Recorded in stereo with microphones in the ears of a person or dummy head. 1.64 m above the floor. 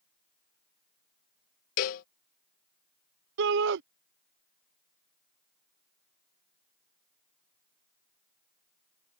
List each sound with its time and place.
1.8 s a cowbell: 40° left (ahead or behind)
3.4 s a shout: 65° right (ahead or behind)